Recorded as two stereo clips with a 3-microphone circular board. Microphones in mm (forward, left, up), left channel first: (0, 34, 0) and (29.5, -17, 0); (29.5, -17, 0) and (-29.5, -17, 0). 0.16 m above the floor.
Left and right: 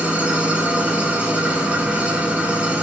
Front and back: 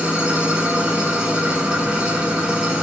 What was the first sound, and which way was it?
An engine running, 115° right.